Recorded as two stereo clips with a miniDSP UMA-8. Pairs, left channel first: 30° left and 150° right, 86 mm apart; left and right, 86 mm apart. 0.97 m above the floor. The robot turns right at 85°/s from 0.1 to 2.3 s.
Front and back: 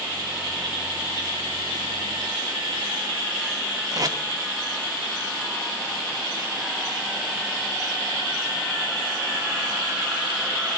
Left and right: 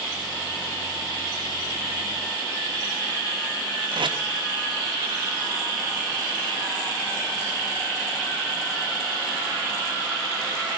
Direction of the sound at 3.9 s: 105° right.